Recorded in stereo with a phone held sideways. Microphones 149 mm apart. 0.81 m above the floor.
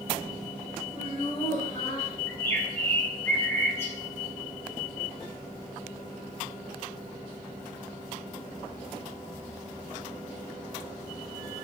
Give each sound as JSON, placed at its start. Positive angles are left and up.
{"t": 0.9, "sound": "laughter", "side_deg": 35, "distance_m": 5.5}
{"t": 2.3, "sound": "a bird", "side_deg": 15, "distance_m": 2.0}